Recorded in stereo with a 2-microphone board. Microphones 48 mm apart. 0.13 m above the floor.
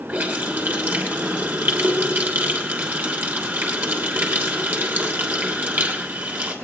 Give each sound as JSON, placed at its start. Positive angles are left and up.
{"t": 0.1, "sound": "a running tap", "side_deg": -50, "distance_m": 3.0}